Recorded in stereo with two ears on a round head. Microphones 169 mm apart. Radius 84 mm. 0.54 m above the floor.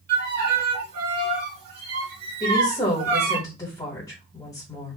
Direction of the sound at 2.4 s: 20° left (ahead or behind).